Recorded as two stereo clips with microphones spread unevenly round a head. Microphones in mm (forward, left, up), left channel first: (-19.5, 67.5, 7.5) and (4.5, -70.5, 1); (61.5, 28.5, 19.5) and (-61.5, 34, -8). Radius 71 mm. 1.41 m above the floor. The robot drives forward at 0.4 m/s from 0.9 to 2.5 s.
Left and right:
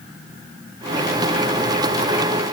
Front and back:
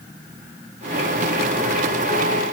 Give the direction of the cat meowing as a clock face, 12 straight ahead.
I don't hear a cat meowing.